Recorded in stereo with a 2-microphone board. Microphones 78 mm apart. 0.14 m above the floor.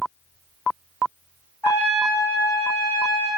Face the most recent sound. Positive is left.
turn(degrees=30)  # may be behind; listen again after turning